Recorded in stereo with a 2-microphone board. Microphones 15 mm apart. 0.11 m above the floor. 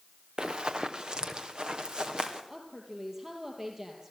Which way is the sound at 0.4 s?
65° right (ahead or behind).